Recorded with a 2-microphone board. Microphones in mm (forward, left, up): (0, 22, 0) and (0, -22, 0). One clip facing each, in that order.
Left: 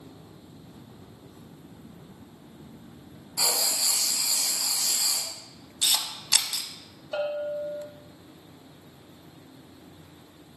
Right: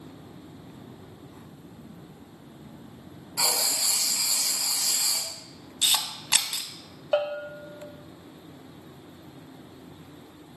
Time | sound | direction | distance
3.4 | writing | 55° right (ahead or behind) | 1.3 m
5.8 | a camera shutter | 35° right (ahead or behind) | 0.5 m
7.1 | a bell | 65° right (ahead or behind) | 0.7 m